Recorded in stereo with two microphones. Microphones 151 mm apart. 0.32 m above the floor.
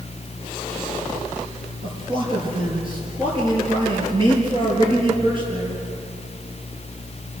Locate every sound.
1.8 s a man speaking: 35° right (ahead or behind), 7 m